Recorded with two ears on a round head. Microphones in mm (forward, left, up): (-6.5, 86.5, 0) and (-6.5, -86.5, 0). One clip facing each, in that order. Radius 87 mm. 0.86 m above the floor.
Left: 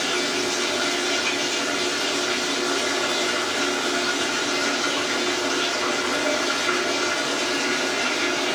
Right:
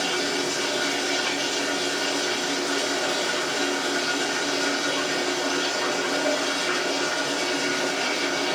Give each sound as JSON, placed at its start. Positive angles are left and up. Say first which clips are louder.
{"t": 0.0, "sound": "running water", "louder": "left 1 dB", "side_deg": 15, "distance_m": 3.0}